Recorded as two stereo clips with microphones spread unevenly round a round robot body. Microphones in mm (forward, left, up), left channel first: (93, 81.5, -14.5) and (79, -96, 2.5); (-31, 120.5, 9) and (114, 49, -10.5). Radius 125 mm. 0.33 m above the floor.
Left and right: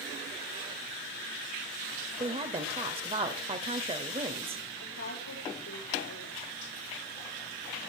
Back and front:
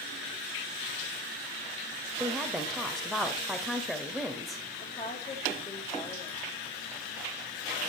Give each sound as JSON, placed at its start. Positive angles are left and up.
{"t": 2.2, "sound": "a woman speaking", "azimuth_deg": -100, "distance_m": 1.5}
{"t": 4.8, "sound": "a woman speaking", "azimuth_deg": 100, "distance_m": 9.0}